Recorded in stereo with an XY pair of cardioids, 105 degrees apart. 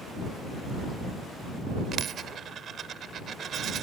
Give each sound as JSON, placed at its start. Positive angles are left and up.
{"t": 1.9, "sound": "a dropped coin", "azimuth_deg": -60}